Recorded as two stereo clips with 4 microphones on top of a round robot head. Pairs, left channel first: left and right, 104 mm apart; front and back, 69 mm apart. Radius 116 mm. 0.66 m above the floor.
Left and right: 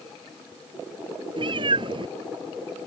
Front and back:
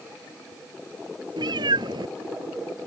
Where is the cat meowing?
140° right.